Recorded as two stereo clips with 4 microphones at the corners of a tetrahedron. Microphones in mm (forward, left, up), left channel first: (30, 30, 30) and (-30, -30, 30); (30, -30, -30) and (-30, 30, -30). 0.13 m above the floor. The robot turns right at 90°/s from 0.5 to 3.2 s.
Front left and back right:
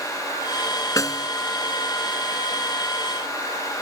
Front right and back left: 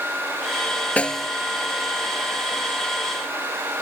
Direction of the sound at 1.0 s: 20° left.